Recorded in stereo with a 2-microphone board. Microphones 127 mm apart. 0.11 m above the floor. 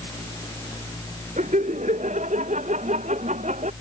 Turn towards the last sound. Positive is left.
turn(degrees=-80)